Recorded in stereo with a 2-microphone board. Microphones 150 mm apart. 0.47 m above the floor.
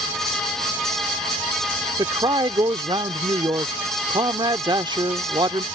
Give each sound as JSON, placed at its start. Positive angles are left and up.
{"t": 2.0, "sound": "a man speaking", "side_deg": -30}